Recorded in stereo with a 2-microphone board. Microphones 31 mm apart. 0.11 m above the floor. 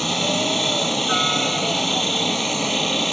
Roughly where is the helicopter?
Centre.